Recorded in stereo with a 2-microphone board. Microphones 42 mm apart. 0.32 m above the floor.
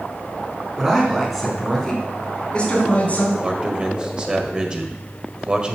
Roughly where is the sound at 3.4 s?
Right.